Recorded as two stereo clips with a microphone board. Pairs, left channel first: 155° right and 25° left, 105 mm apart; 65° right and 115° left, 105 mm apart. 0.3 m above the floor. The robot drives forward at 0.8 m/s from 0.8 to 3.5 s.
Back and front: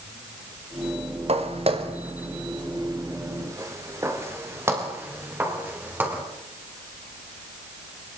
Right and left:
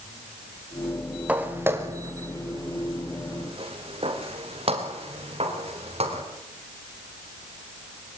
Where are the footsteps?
35° left, 4 m; by 6.2 s 95° left, 8 m.